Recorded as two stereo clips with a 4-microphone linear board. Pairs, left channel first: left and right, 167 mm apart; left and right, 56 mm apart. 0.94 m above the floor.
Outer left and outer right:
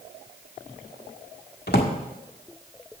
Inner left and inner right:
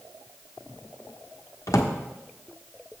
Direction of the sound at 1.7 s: 75° left (ahead or behind).